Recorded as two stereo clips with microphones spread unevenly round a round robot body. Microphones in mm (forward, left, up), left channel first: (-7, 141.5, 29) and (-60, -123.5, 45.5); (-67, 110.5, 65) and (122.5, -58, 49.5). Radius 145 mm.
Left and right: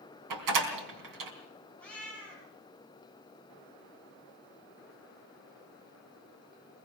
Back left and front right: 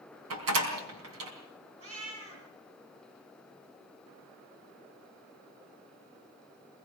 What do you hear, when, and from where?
0.3 s a door slam: 80° right, 4 m
1.8 s a cat meowing: 10° right, 7.5 m